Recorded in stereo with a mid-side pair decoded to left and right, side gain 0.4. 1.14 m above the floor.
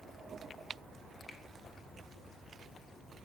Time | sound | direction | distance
1.3 | a finger snap | 20° left | 3 m